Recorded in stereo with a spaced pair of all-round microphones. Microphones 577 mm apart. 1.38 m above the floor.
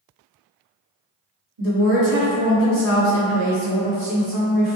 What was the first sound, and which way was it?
A woman speaking, 85° right.